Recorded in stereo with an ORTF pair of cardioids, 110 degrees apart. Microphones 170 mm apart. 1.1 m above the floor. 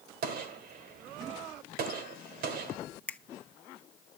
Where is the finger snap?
10° left, 1.0 m.